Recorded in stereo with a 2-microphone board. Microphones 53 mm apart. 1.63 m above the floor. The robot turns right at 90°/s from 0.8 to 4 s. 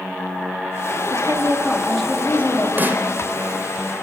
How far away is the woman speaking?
About 4 m.